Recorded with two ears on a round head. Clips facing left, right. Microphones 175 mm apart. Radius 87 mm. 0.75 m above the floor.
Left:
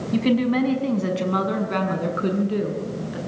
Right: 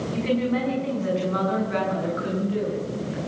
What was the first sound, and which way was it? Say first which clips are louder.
A woman speaking: left 5 dB; 65° left (ahead or behind).